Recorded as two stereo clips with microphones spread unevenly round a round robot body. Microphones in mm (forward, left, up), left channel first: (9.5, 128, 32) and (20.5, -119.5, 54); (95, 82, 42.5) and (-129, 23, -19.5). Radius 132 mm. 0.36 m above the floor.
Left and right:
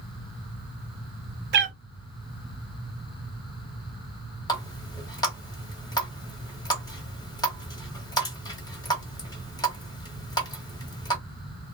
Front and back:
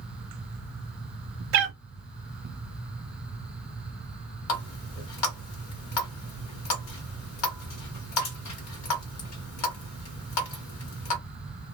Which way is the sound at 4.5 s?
20° left.